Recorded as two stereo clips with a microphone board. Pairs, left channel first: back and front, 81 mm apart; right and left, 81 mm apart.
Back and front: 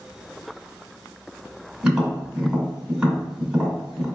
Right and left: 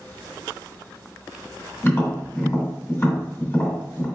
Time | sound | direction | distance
1.8 | tapping | 70° right | 1.7 m